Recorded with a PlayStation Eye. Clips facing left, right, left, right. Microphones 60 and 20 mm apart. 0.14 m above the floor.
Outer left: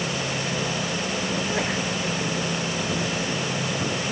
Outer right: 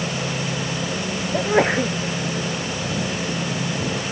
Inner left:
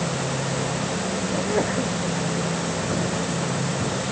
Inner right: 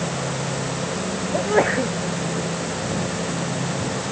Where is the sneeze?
40° right (ahead or behind).